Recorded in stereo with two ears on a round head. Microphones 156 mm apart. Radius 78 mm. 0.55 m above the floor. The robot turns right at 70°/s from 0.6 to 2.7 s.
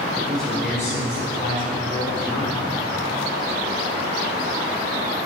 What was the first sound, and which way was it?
A man speaking, 5° left.